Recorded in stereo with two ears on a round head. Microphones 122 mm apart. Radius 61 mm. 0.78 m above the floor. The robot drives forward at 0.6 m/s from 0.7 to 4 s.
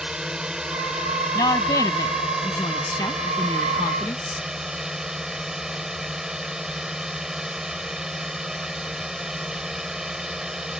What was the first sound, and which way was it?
A drone, 5° right (ahead or behind).